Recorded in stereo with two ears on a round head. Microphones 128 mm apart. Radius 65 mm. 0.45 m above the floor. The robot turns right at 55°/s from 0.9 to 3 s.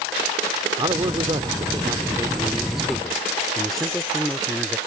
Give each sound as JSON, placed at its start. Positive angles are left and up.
{"t": 0.8, "sound": "a man speaking", "azimuth_deg": -110}